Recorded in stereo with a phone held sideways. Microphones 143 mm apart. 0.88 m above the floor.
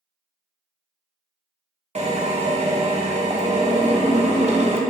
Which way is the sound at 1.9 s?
45° right (ahead or behind).